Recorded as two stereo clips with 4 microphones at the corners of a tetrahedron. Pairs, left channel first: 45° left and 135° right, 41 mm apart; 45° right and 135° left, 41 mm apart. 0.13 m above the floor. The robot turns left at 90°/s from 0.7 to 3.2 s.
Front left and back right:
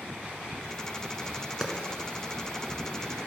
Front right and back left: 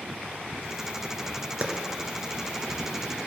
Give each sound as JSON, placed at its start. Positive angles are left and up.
{"t": 1.6, "sound": "a clap", "azimuth_deg": 160, "distance_m": 1.5}